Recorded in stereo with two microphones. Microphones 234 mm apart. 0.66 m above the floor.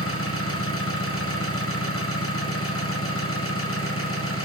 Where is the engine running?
70° left (ahead or behind), 3.5 m.